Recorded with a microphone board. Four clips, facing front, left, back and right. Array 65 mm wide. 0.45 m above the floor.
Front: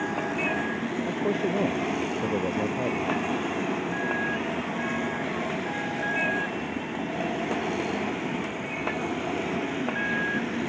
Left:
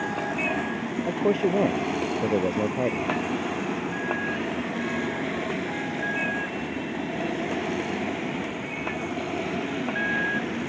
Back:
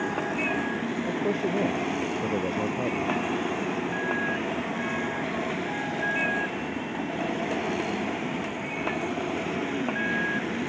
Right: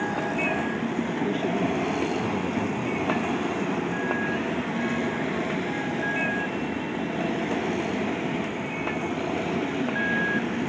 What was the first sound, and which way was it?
A man speaking, 85° left.